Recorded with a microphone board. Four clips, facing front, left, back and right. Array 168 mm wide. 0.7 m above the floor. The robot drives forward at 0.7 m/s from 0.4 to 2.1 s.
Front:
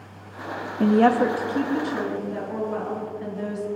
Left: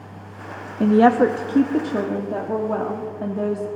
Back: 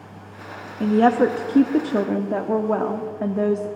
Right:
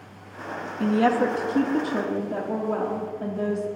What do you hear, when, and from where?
0.8 s a woman speaking: 60° left, 0.5 m; by 3.7 s 165° left, 0.9 m